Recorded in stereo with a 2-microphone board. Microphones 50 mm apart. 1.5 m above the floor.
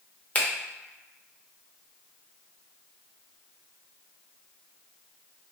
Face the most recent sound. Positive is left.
turn(degrees=25)  # may be behind; listen again after turning